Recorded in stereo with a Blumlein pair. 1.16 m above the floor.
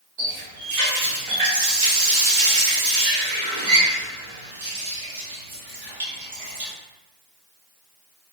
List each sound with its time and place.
0.2 s a running tap: 50° right, 1.2 m